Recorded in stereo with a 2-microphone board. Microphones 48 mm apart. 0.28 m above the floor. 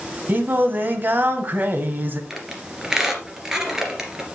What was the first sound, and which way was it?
Singing, 40° right (ahead or behind).